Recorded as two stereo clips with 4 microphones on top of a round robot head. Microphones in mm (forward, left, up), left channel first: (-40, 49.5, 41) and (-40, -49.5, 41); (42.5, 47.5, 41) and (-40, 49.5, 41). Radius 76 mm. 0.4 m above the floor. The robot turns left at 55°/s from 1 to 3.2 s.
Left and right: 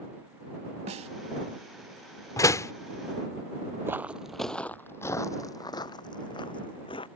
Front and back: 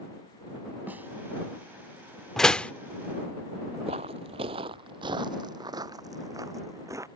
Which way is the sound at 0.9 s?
105° right.